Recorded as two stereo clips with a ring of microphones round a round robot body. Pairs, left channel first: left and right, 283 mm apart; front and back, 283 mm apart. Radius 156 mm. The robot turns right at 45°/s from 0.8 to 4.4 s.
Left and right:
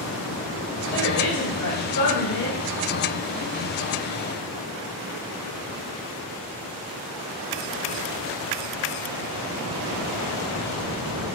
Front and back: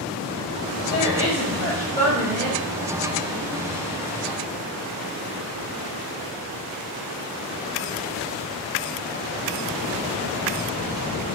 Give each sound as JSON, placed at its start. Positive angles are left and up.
{"t": 0.9, "sound": "a woman speaking", "azimuth_deg": 25, "distance_m": 1.7}